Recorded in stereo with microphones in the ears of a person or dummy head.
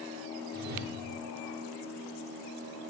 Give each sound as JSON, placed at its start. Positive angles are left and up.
{"t": 0.5, "sound": "a whoosh", "side_deg": -55, "distance_m": 1.9}